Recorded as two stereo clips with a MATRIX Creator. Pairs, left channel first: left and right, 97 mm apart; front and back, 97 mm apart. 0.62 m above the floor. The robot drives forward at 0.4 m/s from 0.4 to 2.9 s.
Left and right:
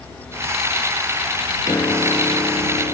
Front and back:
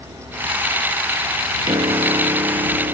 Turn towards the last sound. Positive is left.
turn(degrees=145)